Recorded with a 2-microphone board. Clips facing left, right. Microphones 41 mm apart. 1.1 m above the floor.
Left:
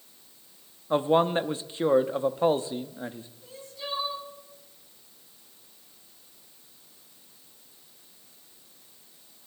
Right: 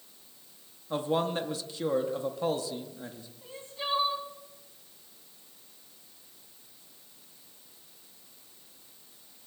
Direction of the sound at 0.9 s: 30° left (ahead or behind).